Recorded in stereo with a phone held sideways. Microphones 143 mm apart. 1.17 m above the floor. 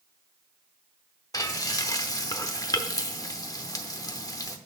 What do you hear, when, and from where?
1.3 s frying: 25° left (ahead or behind), 0.8 m